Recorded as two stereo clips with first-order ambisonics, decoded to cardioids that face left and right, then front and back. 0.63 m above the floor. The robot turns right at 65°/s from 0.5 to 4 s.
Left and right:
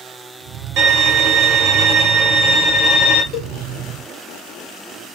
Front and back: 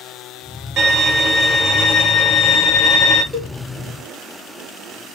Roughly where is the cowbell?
Left.